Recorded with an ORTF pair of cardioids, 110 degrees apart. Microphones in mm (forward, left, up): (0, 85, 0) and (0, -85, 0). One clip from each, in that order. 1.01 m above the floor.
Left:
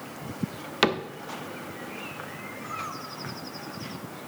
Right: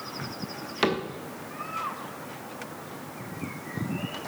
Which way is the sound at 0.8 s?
30° left.